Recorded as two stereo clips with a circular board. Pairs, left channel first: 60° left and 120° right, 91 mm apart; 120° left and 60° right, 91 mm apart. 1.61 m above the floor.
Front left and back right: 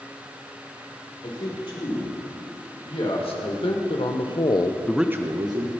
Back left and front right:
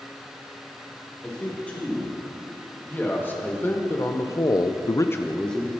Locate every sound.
1.2 s a man speaking: 50° left, 4.5 m; by 5.7 s 155° right, 1.1 m